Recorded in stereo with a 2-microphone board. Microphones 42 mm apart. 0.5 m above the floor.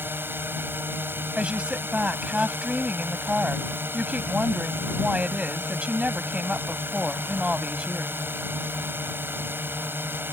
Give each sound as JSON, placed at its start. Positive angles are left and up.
{"t": 0.0, "sound": "a drone", "side_deg": -60}
{"t": 1.4, "sound": "a woman speaking", "side_deg": -30}